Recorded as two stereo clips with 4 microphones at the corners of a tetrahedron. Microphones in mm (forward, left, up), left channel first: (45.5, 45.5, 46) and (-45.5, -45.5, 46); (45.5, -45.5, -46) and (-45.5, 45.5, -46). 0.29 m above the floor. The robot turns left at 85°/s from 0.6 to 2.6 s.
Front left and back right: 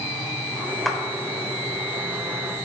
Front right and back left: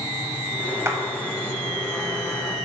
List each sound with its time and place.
0.8 s a clap: 135° left, 1.2 m; by 1.0 s 125° left, 1.2 m